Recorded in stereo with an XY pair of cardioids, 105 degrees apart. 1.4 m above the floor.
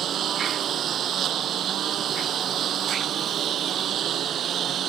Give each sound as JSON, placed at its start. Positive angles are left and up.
{"t": 0.0, "sound": "a lawn mower", "azimuth_deg": -60}